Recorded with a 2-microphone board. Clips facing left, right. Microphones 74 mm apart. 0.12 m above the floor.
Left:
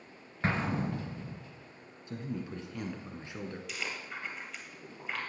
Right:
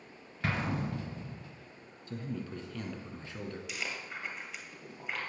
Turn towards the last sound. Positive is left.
turn(degrees=0)  # may be behind; listen again after turning